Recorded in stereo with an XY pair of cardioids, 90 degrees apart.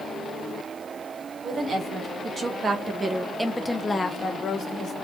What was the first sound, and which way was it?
A woman speaking, 60° right.